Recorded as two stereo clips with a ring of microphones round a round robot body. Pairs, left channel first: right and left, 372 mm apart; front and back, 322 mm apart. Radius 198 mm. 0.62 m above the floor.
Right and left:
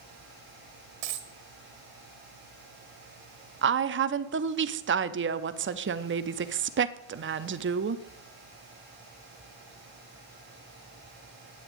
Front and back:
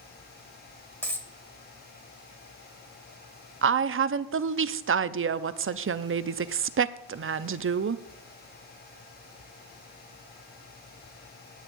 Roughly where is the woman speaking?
Behind left.